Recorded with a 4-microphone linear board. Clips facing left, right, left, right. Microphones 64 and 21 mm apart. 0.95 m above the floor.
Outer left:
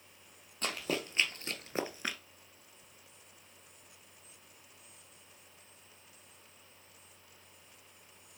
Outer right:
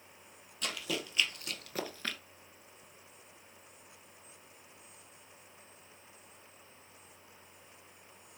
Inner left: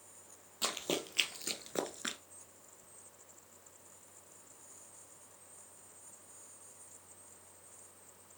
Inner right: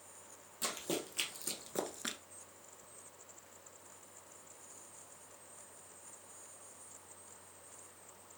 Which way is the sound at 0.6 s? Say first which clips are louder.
Outer left 2 dB, inner left 3 dB; 40° left (ahead or behind).